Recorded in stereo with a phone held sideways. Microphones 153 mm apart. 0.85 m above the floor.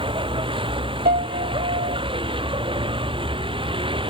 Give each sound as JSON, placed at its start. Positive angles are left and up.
{"t": 0.0, "sound": "a vehicle", "side_deg": -35}
{"t": 1.1, "sound": "a piano", "side_deg": -75}